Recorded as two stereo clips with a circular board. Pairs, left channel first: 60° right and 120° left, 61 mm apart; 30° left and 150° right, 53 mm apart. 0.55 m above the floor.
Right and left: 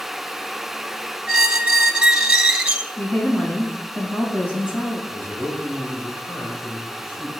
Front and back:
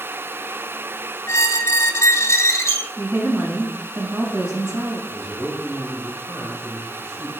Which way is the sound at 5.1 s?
130° right.